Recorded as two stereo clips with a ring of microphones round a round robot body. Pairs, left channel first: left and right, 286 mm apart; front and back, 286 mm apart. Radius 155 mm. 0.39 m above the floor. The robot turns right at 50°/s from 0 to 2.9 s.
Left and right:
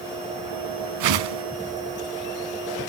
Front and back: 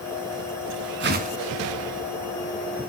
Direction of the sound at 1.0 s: 125° right.